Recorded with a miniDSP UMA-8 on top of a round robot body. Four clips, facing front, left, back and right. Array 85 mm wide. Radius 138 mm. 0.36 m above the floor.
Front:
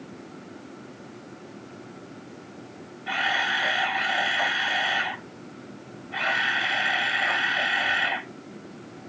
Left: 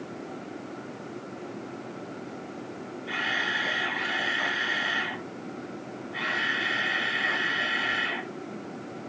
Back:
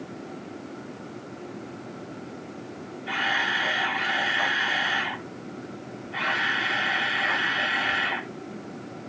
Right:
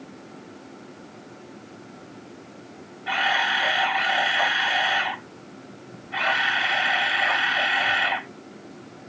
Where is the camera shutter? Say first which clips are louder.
Right 7 dB, front 1 dB; 70° right, 3.5 m.